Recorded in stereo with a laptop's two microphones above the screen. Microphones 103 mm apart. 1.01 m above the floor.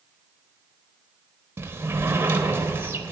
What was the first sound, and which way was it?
A sliding door, 25° right (ahead or behind).